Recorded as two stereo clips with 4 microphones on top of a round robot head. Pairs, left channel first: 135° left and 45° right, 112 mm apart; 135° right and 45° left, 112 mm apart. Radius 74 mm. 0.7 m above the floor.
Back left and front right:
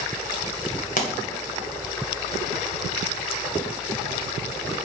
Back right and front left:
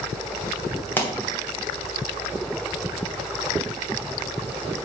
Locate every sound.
1.0 s a pop: 150° left, 1.8 m